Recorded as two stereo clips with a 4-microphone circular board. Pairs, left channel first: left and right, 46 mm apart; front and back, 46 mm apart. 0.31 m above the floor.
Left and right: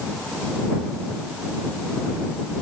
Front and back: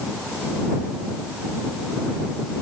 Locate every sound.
Only background noise.